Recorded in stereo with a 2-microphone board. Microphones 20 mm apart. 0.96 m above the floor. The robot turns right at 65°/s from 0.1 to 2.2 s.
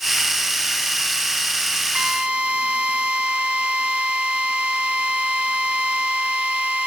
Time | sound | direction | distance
1.9 | a drill | 45° right (ahead or behind) | 3 m